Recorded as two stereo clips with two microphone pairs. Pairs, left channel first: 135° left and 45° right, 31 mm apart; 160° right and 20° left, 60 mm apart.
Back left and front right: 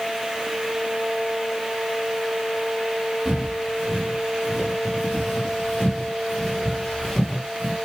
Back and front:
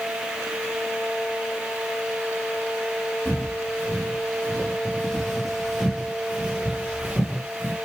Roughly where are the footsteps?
Right.